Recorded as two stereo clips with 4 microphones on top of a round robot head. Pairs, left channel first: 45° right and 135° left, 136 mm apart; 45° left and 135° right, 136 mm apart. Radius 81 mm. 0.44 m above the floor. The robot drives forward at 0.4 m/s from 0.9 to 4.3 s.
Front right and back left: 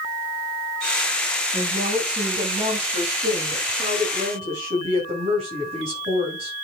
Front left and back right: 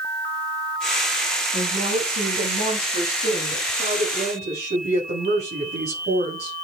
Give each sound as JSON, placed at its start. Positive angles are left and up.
{"t": 1.5, "sound": "a woman speaking", "azimuth_deg": -175, "distance_m": 5.0}